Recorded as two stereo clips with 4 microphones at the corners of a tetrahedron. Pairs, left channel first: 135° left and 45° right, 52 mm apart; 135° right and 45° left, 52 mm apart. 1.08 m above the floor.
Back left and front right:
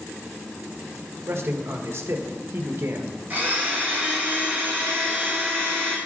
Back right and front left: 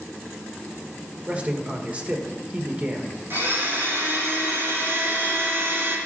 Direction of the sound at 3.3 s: 10° left.